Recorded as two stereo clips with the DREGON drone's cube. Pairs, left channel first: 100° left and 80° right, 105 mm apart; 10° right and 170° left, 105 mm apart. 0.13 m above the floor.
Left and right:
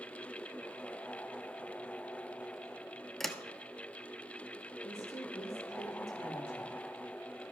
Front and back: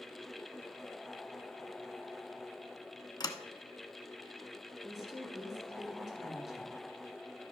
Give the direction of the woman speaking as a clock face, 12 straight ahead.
9 o'clock.